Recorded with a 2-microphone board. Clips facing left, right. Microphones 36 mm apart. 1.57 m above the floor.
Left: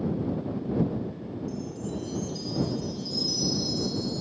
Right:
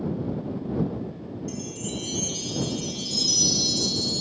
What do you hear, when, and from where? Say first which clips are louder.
1.5 s a chime: right 2 dB; 70° right (ahead or behind)